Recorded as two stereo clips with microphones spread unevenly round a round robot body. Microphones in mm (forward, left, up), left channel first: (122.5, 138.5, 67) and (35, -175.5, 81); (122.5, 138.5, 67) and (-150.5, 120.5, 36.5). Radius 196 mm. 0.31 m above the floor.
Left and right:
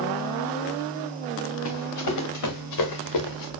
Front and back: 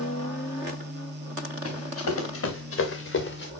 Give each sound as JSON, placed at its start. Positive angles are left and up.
{"t": 1.6, "sound": "running footsteps", "azimuth_deg": 35, "distance_m": 3.5}